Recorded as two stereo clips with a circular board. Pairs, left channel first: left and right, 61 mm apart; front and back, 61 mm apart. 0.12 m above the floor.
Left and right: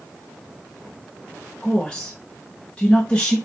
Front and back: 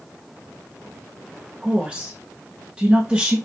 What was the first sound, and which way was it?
A woman speaking, 135° left.